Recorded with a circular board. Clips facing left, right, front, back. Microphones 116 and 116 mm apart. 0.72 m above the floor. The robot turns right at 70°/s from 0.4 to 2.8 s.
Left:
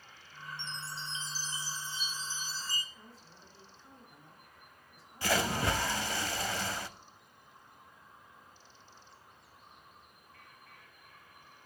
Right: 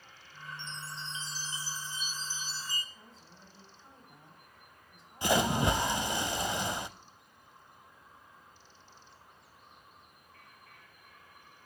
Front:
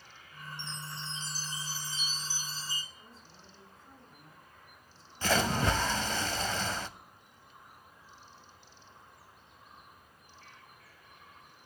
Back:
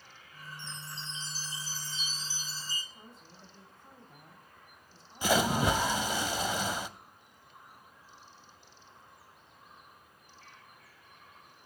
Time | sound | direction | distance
0.6 | a chime | 5° right | 4 m
2.9 | a woman speaking | 155° right | 4 m
5.2 | a splash | 120° right | 0.5 m